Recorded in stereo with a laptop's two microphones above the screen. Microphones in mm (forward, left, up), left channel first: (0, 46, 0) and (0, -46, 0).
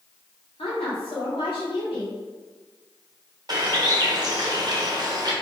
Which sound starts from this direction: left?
A woman speaking, at 0.6 s.